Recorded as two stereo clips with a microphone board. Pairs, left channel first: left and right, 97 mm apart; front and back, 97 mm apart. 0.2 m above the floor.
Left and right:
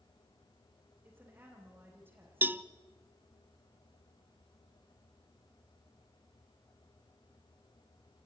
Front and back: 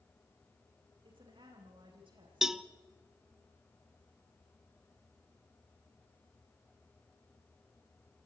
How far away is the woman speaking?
About 8.5 m.